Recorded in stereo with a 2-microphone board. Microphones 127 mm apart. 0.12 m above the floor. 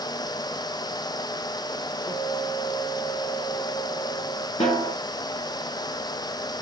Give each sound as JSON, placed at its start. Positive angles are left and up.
{"t": 2.1, "sound": "a guitar", "side_deg": 45, "distance_m": 6.5}
{"t": 4.6, "sound": "a snare drum", "side_deg": 50, "distance_m": 5.5}